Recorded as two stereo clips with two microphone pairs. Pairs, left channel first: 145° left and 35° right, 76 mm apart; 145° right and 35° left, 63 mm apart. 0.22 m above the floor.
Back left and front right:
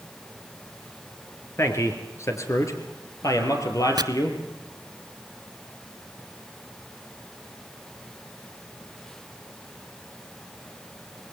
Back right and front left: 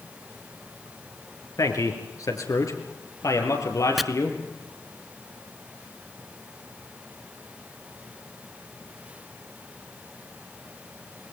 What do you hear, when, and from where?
1.6 s a man speaking: 160° right, 3.5 m; by 4.4 s straight behind, 5.5 m
4.0 s chopping: 55° right, 0.6 m